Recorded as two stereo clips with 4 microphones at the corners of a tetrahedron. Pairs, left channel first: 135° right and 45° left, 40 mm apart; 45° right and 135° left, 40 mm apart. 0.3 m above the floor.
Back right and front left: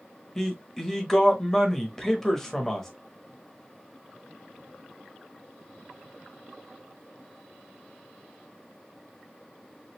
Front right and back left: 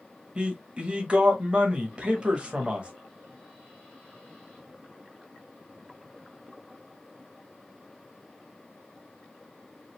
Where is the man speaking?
155° left, 1.0 m.